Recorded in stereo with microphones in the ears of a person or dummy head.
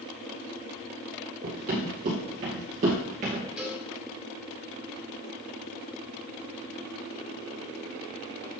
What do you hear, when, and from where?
1.4 s running footsteps: 50° right (ahead or behind), 3 m; by 3.4 s 35° right (ahead or behind), 2 m
3.6 s a cowbell: 5° right (ahead or behind), 1.0 m